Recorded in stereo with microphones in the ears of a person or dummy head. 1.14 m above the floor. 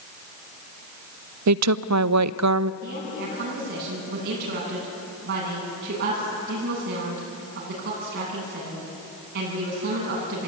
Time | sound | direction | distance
1.5 | a woman speaking | 80° right | 0.6 m
2.8 | a woman speaking | 55° right (ahead or behind) | 9 m